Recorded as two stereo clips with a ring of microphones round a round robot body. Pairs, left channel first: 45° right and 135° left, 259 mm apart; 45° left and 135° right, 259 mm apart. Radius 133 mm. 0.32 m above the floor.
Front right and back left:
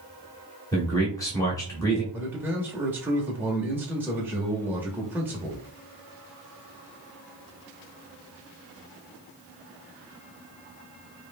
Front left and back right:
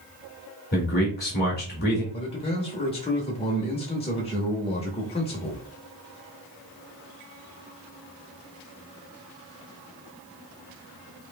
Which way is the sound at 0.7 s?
25° left.